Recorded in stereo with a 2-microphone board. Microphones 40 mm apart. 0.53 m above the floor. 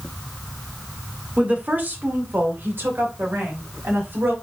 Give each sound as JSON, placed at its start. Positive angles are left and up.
{"t": 1.4, "sound": "a woman speaking", "side_deg": -35, "distance_m": 1.2}